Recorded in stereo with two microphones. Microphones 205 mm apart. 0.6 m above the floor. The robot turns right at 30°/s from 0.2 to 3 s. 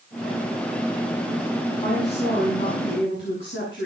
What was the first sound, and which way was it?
A woman speaking, 25° left.